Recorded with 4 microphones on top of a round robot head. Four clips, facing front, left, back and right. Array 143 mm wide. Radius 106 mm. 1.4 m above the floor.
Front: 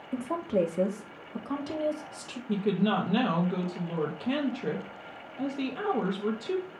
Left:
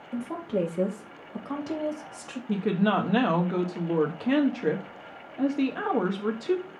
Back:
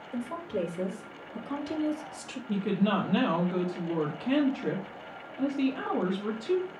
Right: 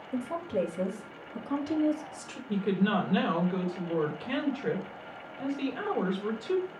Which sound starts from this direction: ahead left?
A woman speaking, at 0.1 s.